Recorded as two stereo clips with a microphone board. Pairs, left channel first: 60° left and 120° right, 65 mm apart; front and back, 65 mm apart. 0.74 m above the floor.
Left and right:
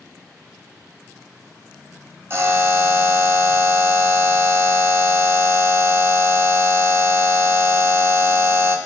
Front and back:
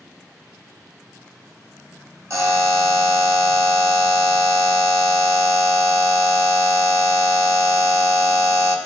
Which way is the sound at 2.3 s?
160° right.